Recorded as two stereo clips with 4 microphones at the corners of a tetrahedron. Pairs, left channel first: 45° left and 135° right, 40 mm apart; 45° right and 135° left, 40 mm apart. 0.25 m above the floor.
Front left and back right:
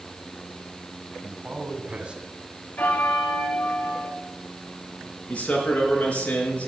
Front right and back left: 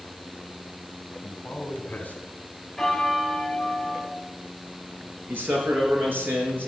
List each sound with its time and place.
1.2 s a man speaking: 95° right, 3 m; by 2.3 s 80° right, 2.5 m
2.8 s a bell: 35° left, 1.3 m
5.3 s a man speaking: 100° left, 4 m